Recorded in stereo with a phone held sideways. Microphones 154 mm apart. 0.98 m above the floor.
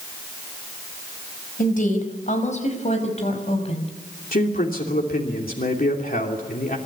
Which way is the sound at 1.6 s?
60° left (ahead or behind).